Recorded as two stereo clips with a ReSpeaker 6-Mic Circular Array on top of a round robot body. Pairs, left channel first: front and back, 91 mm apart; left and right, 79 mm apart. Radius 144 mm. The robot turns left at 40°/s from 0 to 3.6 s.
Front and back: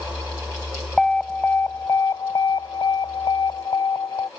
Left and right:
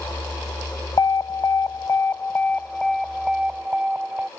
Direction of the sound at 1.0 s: 85° left.